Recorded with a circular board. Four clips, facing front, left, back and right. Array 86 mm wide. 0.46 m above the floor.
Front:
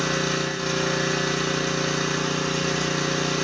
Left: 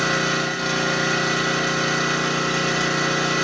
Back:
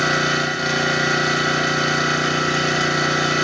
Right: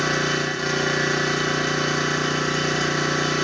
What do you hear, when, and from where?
0.0 s an engine running: 155° left, 1.6 m